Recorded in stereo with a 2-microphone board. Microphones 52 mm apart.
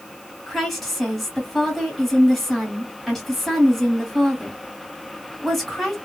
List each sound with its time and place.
0.5 s a woman speaking: centre (ahead or behind), 1.8 m